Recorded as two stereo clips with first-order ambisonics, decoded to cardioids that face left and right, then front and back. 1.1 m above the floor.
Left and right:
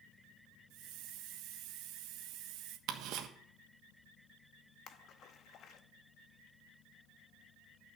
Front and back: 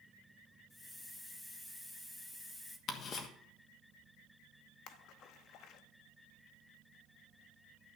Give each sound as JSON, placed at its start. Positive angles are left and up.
{"t": 0.7, "sound": "a hiss", "azimuth_deg": -80, "distance_m": 1.0}
{"t": 2.9, "sound": "ticking", "azimuth_deg": -55, "distance_m": 1.3}
{"t": 4.9, "sound": "a splash", "azimuth_deg": 40, "distance_m": 0.8}